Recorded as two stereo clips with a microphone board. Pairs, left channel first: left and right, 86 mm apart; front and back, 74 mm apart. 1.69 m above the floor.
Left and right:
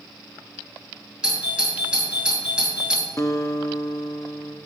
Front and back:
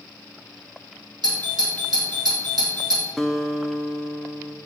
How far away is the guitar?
About 0.5 m.